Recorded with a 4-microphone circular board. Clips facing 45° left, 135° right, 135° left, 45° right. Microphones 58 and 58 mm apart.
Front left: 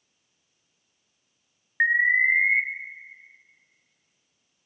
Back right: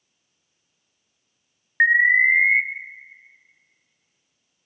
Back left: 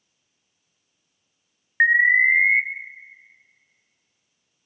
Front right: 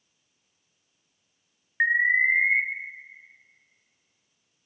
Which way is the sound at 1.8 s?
Straight behind.